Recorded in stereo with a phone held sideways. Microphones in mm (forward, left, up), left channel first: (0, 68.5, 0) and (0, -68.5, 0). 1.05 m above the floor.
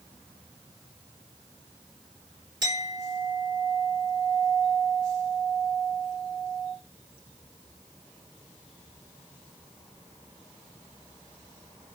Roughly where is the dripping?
I don't hear dripping.